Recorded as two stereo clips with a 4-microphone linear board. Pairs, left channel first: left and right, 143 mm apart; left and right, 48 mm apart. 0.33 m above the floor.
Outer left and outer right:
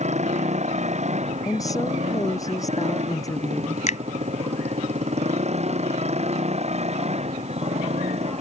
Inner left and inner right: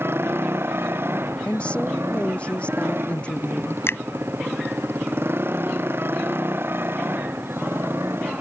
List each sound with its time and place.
0.0 s a motorcycle: 55° right (ahead or behind); by 8.4 s 50° right (ahead or behind)
1.4 s a woman speaking: 25° left (ahead or behind)
3.9 s a finger snap: 55° left (ahead or behind)